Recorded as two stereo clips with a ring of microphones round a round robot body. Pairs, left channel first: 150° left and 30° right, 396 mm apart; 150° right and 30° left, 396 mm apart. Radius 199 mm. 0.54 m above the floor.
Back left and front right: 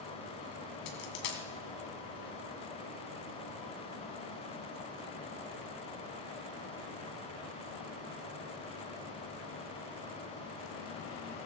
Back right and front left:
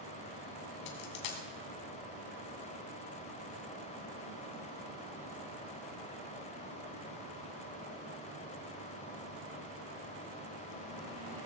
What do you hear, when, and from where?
0.9 s a dropped coin: 170° right, 2.5 m